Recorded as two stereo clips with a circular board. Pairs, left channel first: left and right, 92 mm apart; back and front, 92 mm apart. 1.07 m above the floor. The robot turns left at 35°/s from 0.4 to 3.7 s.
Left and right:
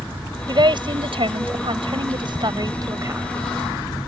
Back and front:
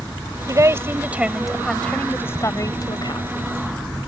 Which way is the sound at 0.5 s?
55° right.